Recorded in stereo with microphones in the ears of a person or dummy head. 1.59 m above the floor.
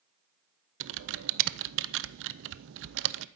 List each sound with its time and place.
0.8 s typing on a keyboard: 70° right (ahead or behind), 0.6 m